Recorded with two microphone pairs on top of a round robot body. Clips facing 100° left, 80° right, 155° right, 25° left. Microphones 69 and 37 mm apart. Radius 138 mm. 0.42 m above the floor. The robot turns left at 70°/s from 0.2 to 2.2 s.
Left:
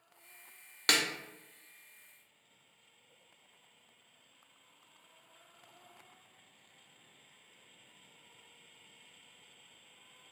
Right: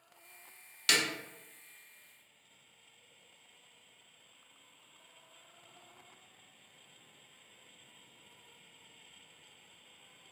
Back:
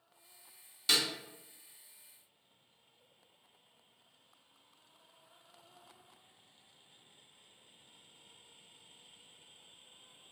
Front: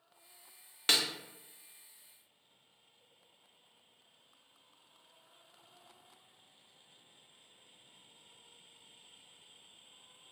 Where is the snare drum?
65° left, 0.6 m; by 1.0 s 55° left, 0.6 m.